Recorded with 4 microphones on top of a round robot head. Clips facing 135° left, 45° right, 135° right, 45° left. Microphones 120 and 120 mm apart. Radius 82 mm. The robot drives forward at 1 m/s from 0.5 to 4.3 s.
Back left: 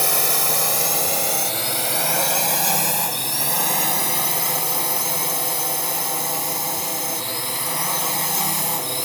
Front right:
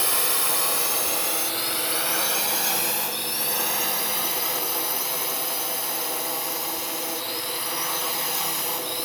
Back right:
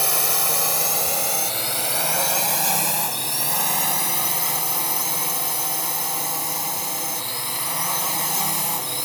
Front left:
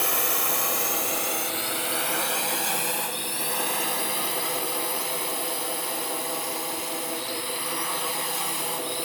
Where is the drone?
175° left.